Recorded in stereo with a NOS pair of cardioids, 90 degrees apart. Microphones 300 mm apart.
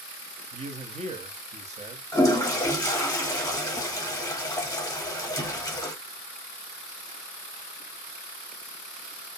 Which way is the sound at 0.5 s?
25° right.